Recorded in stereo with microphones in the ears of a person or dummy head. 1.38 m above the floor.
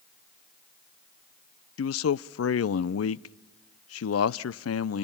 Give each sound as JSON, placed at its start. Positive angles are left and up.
{"t": 1.8, "sound": "a man speaking", "side_deg": 75, "distance_m": 0.6}